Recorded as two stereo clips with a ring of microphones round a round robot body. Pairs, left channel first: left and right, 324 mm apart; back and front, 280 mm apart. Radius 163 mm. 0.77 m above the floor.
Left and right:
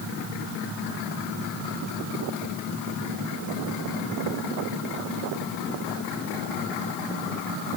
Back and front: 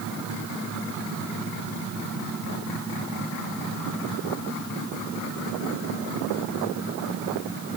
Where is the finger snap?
I don't hear a finger snap.